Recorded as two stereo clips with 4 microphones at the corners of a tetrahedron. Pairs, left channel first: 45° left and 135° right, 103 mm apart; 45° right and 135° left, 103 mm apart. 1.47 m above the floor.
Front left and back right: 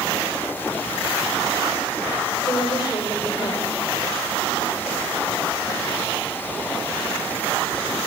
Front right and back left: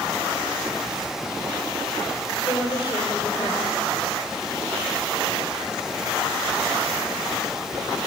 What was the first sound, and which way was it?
A woman speaking, straight ahead.